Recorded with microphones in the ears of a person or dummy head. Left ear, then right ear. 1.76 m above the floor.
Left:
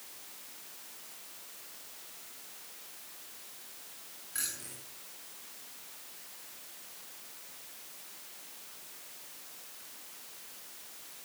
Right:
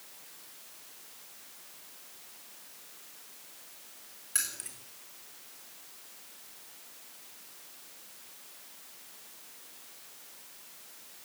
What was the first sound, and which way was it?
Keys jangling, 35° right (ahead or behind).